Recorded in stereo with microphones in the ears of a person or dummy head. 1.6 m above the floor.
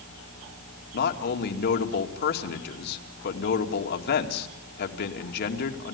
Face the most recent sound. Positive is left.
turn(degrees=65)  # may be behind; listen again after turning